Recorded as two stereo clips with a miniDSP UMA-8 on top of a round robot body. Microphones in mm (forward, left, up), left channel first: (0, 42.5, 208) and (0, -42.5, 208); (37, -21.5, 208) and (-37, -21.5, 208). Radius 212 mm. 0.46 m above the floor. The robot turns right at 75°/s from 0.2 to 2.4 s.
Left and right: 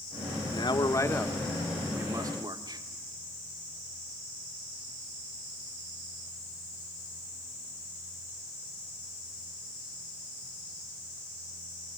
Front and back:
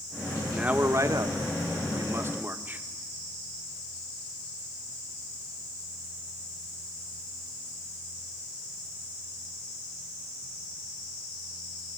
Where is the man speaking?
100° left, 2 m; by 2.8 s 115° right, 2 m.